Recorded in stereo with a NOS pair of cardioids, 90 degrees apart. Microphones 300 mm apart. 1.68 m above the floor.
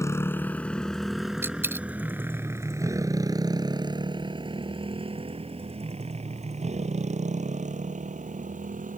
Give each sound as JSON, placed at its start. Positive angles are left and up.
{"t": 0.0, "sound": "a motorcycle", "azimuth_deg": 10}
{"t": 1.4, "sound": "a dropped coin", "azimuth_deg": -10}